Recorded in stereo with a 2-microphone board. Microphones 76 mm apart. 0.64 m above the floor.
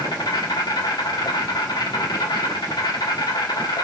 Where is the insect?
65° left (ahead or behind), 0.8 m.